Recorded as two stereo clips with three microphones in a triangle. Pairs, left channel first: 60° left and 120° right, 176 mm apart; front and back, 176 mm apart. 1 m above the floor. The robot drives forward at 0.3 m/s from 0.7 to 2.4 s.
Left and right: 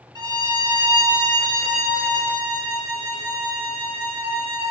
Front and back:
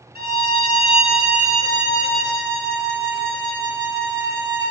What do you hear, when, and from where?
0.1 s a violin: straight behind, 1.3 m